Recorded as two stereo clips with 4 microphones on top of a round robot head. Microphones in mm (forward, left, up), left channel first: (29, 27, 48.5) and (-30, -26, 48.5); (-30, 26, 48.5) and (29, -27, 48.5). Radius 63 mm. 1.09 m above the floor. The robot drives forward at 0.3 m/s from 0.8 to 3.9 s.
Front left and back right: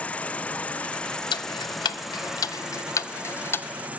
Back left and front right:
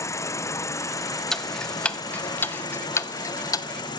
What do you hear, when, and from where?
0.0 s an insect: 110° left, 0.9 m; by 4.0 s 155° left, 1.4 m
1.3 s ticking: 55° left, 1.0 m; by 3.7 s 105° left, 0.9 m